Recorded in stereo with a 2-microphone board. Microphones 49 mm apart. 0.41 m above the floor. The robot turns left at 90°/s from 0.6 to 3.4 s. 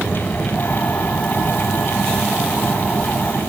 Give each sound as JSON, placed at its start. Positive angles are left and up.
{"t": 0.0, "sound": "an aircraft", "side_deg": -10}